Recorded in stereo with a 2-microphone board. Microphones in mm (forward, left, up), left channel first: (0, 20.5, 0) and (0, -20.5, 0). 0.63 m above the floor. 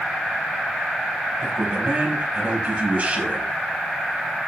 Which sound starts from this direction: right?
A man speaking, at 1.4 s.